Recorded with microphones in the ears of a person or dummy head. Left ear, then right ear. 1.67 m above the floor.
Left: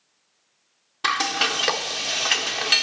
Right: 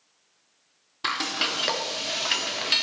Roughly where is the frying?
Left.